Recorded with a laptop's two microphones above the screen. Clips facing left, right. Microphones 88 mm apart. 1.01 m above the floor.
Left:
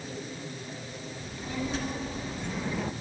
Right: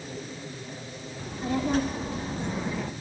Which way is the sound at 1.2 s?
55° right (ahead or behind).